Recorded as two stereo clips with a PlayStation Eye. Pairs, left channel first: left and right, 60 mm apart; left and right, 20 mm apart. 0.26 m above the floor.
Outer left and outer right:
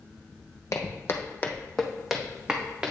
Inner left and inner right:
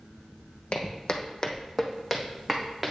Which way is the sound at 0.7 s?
60° left (ahead or behind).